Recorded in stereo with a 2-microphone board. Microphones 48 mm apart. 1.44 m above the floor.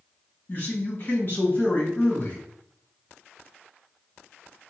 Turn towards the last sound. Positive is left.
turn(degrees=50)  # may be behind; listen again after turning